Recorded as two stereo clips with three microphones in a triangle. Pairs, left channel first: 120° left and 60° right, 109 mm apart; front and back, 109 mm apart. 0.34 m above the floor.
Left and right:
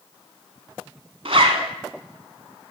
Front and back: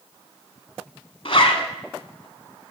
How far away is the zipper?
About 1.0 m.